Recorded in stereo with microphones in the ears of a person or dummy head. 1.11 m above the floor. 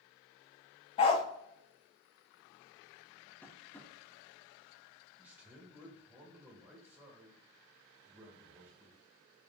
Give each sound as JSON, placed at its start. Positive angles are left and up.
{"t": 1.0, "sound": "a dog barking", "side_deg": 30, "distance_m": 0.6}
{"t": 3.4, "sound": "tapping", "side_deg": 10, "distance_m": 0.7}
{"t": 5.2, "sound": "a man speaking", "side_deg": -10, "distance_m": 1.9}